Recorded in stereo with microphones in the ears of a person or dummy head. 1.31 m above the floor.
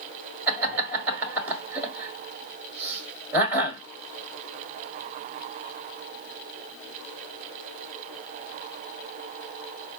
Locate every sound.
0.5 s laughter: 10° right (ahead or behind), 1.9 m